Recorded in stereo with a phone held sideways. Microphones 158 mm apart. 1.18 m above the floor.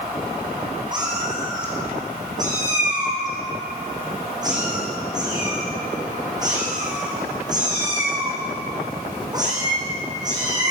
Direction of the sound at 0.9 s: 25° right (ahead or behind).